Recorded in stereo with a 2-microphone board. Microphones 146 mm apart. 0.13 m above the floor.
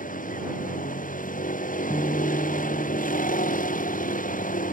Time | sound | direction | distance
0.0 | a vehicle | 65° left (ahead or behind) | ?
1.9 | a guitar | 15° left (ahead or behind) | ?